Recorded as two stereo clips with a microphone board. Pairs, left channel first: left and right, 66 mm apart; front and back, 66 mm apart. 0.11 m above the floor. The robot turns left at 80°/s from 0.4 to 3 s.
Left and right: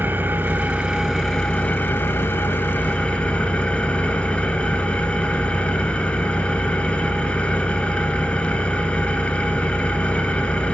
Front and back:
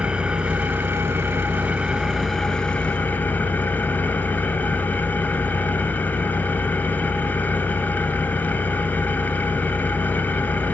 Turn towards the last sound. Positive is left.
turn(degrees=35)